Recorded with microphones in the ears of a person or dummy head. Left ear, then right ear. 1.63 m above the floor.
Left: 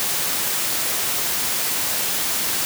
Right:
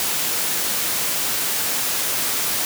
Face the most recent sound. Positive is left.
No sound to turn to.